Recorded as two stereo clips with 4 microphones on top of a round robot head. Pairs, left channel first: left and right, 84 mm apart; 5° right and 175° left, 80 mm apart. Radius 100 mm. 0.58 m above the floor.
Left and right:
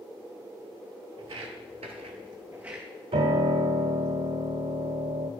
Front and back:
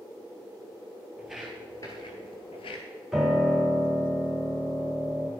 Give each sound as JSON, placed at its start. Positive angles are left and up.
{"t": 1.2, "sound": "footsteps", "azimuth_deg": -105, "distance_m": 0.9}
{"t": 3.1, "sound": "a piano", "azimuth_deg": -100, "distance_m": 1.2}